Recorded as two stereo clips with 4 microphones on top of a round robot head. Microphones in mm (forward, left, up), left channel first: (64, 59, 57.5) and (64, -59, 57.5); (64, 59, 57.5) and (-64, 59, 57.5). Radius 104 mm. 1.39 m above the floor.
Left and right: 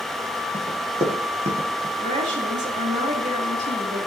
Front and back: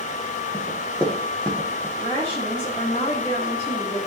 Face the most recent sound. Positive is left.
turn(degrees=-70)